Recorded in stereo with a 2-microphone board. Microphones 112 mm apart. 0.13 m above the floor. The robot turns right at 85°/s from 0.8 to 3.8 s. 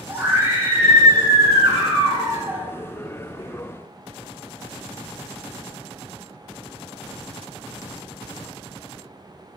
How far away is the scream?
About 8 m.